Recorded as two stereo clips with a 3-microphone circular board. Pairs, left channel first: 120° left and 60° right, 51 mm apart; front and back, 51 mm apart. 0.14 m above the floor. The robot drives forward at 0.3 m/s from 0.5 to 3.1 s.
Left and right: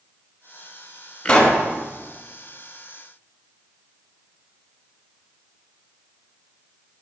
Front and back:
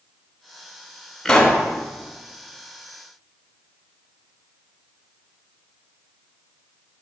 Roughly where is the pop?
Ahead left.